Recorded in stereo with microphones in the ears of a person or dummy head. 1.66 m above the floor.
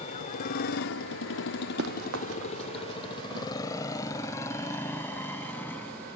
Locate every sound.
0.0 s a motorcycle: 35° left (ahead or behind); by 6.2 s 10° left (ahead or behind)
1.8 s running footsteps: 70° right (ahead or behind); by 3.5 s 75° right (ahead or behind)